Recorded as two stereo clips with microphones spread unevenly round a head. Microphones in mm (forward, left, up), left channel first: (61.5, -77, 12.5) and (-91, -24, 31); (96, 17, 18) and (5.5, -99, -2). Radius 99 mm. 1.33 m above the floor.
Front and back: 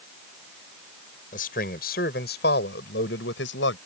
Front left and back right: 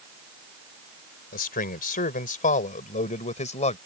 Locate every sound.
1.3 s a man speaking: 35° left; by 3.8 s 10° left